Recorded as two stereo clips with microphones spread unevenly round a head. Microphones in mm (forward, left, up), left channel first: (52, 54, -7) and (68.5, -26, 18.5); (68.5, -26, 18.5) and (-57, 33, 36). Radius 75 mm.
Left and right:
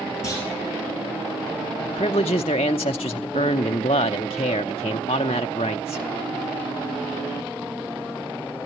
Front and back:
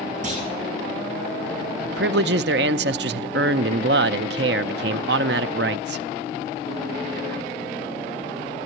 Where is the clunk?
165° right, 5.5 m.